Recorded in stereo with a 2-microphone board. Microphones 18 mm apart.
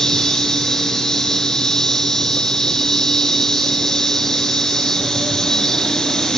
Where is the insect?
40° left (ahead or behind), 7 m.